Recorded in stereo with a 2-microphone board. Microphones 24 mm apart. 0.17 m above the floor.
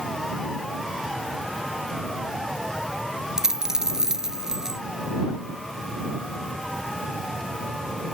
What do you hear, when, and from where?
3.4 s a dropped coin: 25° right (ahead or behind)